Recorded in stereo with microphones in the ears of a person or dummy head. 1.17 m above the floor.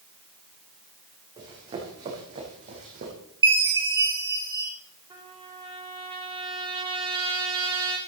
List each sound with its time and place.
1.4 s running footsteps: 25° right (ahead or behind), 5 m; by 3.1 s 40° right (ahead or behind), 4.5 m
3.4 s a chime: 20° right (ahead or behind), 2 m
5.1 s a trumpet: 20° right (ahead or behind), 1.8 m